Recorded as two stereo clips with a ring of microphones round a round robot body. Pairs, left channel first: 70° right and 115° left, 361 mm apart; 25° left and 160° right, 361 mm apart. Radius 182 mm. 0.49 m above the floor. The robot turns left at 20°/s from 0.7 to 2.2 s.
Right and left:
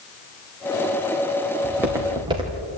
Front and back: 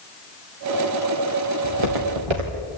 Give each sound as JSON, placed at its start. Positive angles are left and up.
{"t": 1.6, "sound": "footsteps", "azimuth_deg": -160, "distance_m": 3.0}